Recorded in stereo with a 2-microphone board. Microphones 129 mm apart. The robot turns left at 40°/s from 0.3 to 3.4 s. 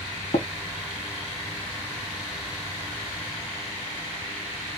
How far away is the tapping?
About 0.6 m.